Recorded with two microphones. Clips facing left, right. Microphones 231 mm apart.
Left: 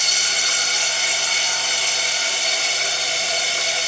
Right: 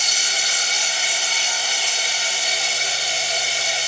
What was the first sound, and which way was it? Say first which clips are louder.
Running water: left 1 dB; 65° left (ahead or behind).